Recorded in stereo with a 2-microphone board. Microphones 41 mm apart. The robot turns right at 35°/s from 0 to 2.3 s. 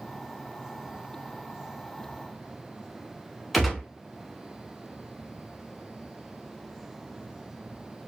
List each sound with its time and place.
3.5 s a gunshot: centre (ahead or behind), 0.8 m